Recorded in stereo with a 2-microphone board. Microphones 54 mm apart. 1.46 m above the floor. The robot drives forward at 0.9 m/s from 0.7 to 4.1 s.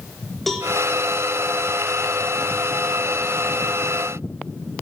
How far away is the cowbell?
About 4.5 m.